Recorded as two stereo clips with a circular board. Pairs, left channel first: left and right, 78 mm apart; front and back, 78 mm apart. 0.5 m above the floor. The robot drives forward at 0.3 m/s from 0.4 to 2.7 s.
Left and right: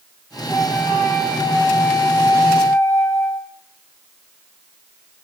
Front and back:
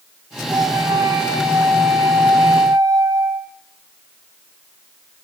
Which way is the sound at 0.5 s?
165° left.